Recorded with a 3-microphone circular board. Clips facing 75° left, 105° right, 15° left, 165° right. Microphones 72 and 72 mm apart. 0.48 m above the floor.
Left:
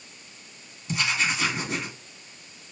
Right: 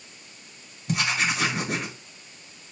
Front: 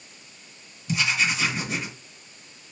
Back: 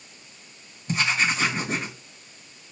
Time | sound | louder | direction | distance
0.9 | writing | right 1 dB, back 1 dB | 125° right | 1.4 m